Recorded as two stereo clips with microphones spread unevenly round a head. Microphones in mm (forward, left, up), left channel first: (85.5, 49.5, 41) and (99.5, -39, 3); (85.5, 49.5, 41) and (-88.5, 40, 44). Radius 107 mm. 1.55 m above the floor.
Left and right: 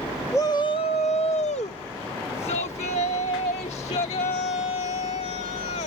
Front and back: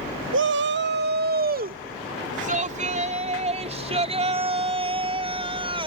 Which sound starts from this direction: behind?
A shout, at 0.3 s.